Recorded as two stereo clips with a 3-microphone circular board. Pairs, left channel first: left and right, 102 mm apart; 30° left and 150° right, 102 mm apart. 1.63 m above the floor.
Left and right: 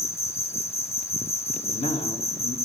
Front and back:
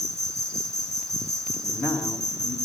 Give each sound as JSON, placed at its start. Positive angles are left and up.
{"t": 0.0, "sound": "an insect", "azimuth_deg": 150, "distance_m": 0.9}
{"t": 1.6, "sound": "a man speaking", "azimuth_deg": 95, "distance_m": 4.0}